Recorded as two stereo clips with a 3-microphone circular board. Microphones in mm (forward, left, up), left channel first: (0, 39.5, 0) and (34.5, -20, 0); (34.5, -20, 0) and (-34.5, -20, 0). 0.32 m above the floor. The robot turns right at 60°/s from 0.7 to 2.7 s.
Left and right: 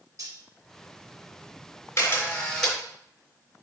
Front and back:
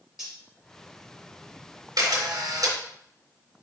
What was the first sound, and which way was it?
Cutlery clinking, 95° right.